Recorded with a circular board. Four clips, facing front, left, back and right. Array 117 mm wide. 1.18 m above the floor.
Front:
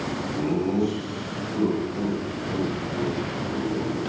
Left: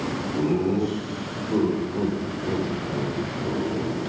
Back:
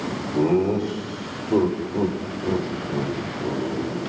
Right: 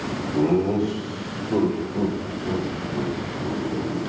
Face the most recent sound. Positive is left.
turn(degrees=150)